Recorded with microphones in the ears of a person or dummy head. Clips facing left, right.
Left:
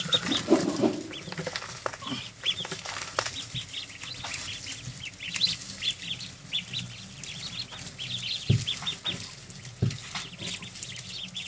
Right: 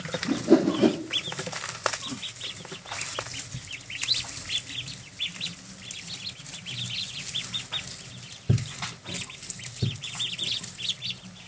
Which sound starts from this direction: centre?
A whoosh, at 0.3 s.